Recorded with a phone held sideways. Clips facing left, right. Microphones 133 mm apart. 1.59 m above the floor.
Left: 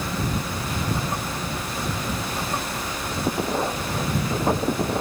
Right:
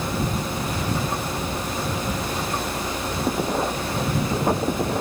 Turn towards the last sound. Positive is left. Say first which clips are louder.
# right 2 dB
turn(degrees=-20)  # may be behind; listen again after turning